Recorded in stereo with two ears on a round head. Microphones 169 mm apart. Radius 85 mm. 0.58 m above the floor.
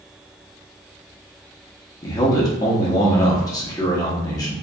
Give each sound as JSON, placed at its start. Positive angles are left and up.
{"t": 2.0, "sound": "a man speaking", "side_deg": 20, "distance_m": 0.7}